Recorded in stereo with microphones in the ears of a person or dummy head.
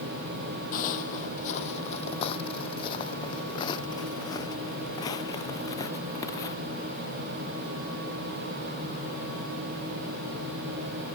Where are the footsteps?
45° left (ahead or behind); by 6.5 s 20° left (ahead or behind).